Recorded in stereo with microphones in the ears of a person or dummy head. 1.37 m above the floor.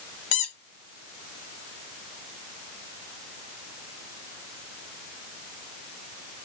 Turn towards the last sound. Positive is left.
turn(degrees=40)  # may be behind; listen again after turning